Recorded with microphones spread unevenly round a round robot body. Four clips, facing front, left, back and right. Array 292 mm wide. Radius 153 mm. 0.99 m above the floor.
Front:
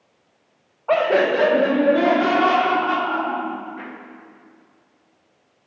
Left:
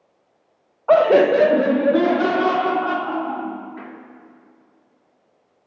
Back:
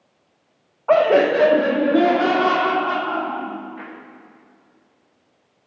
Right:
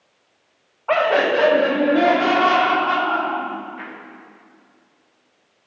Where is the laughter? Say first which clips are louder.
Left 4 dB, back 3 dB; 90° left, 0.8 m.